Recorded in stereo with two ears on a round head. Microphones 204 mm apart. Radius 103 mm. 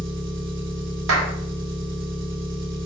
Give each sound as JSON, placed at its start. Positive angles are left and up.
{"t": 0.0, "sound": "an engine running", "side_deg": -55, "distance_m": 1.1}
{"t": 1.1, "sound": "a clap", "side_deg": -60, "distance_m": 1.0}